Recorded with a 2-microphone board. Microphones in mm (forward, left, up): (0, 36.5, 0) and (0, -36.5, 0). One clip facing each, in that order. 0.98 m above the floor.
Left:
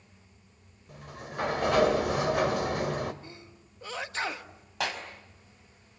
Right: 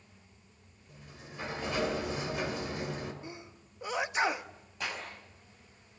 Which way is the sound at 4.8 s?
80° left.